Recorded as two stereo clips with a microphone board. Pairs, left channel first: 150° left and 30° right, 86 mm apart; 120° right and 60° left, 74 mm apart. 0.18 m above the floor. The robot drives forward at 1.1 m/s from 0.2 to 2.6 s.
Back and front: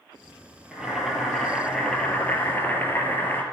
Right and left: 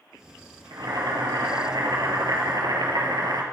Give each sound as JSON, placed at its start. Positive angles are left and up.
{"t": 0.7, "sound": "boiling", "azimuth_deg": 50, "distance_m": 4.0}